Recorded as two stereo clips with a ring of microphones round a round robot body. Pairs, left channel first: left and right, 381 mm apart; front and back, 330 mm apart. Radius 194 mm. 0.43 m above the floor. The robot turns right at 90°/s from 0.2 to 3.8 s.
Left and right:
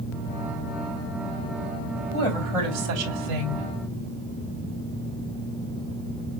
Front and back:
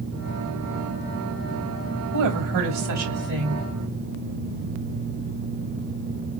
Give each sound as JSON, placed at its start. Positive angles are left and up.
{"t": 2.1, "sound": "a woman speaking", "azimuth_deg": 150, "distance_m": 2.5}